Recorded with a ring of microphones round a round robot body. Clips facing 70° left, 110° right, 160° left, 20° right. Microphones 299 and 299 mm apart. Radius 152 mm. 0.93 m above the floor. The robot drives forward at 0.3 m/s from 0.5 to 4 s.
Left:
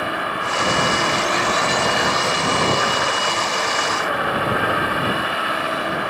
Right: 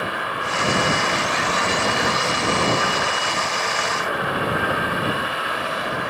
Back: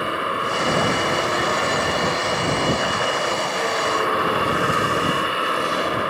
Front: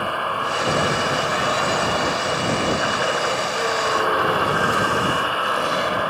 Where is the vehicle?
90° left.